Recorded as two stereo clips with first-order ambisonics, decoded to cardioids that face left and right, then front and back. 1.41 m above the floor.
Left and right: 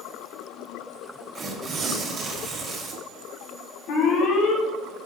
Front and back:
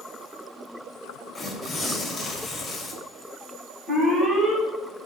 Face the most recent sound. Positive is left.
turn(degrees=110)